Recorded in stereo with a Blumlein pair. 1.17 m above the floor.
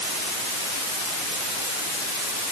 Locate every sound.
Only background noise.